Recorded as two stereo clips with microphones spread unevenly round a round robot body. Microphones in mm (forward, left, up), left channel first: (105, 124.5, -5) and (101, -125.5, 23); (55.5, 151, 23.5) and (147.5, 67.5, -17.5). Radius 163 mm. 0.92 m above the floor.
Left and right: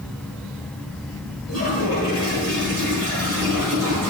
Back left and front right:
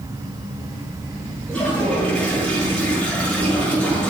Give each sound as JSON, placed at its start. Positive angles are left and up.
{"t": 1.5, "sound": "a toilet flushing", "azimuth_deg": -135, "distance_m": 5.5}